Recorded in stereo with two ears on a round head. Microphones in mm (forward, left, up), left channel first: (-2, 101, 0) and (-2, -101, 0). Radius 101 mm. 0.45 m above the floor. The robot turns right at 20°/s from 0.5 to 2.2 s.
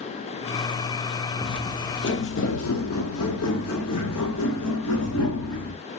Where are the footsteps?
15° left (ahead or behind), 0.8 m; by 5.8 s 80° left, 3 m.